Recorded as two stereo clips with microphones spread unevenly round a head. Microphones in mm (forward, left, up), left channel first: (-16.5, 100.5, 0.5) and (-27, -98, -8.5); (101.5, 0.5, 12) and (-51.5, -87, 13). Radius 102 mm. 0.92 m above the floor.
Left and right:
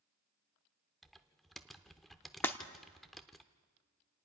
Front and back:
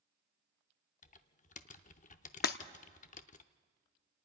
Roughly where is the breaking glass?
Ahead.